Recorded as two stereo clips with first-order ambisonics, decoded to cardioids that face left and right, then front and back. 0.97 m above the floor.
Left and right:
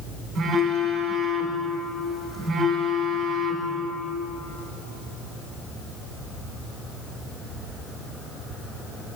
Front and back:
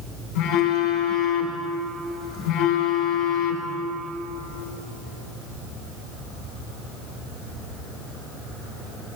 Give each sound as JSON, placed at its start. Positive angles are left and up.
{"t": 0.3, "sound": "a phone buzzing", "azimuth_deg": -15, "distance_m": 1.3}